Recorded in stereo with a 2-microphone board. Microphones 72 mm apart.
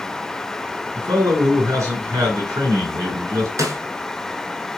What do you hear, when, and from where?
0.9 s a man speaking: 50° right (ahead or behind), 2.5 m
3.6 s a snare drum: 50° right (ahead or behind), 0.9 m